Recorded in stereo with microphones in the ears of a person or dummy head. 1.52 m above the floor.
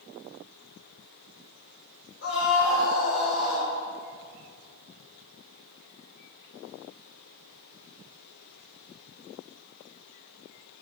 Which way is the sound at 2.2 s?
65° left (ahead or behind).